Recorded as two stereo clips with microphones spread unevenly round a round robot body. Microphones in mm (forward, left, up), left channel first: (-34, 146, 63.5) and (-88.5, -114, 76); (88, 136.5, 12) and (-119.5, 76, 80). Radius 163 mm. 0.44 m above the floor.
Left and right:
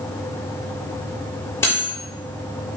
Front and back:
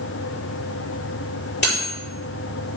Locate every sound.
1.6 s cutlery clinking: 5° right, 5.5 m